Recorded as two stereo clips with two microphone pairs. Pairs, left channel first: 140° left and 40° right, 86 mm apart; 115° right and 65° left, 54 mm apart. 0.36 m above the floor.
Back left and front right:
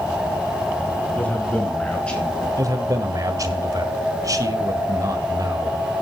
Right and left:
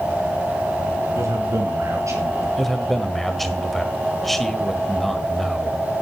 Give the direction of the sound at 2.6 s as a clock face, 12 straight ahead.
1 o'clock.